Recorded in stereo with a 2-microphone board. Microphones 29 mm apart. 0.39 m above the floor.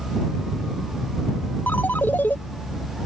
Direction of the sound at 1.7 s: 80° left.